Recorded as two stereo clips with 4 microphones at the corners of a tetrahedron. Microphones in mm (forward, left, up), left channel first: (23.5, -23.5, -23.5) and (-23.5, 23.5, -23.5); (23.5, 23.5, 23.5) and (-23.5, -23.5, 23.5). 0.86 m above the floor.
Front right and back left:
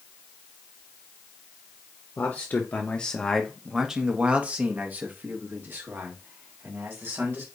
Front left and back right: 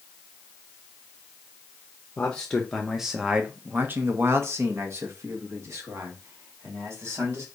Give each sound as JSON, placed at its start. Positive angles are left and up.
{"t": 2.2, "sound": "a man speaking", "azimuth_deg": -20, "distance_m": 0.9}